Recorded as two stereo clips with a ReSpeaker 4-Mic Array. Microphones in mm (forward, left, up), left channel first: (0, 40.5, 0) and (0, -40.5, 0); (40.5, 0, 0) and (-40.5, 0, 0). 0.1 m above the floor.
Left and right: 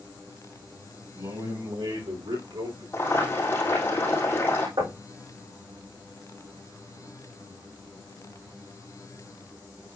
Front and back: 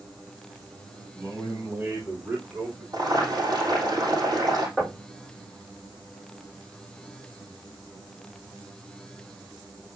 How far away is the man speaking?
About 5.5 m.